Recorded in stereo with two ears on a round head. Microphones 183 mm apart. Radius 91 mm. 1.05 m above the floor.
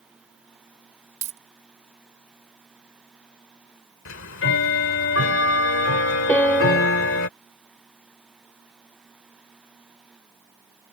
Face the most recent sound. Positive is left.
turn(degrees=5)  # may be behind; listen again after turning